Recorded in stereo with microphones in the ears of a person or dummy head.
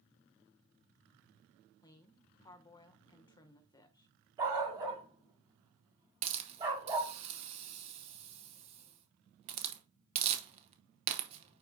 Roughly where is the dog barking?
Right.